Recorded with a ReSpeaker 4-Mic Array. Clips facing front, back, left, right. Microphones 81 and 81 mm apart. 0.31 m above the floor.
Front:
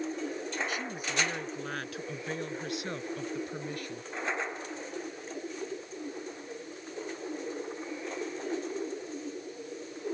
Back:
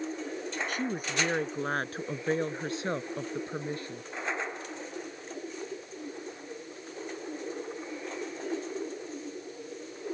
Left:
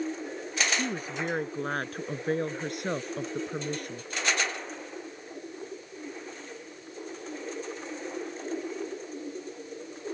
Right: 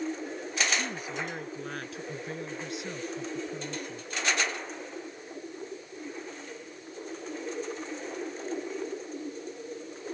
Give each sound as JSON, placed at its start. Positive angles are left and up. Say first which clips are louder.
{"t": 0.7, "sound": "a woman speaking", "louder": "back 3 dB, left 2 dB", "azimuth_deg": 140}